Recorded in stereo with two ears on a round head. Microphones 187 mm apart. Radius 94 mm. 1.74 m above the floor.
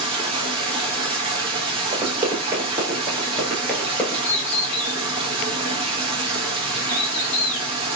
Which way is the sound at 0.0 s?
30° right (ahead or behind).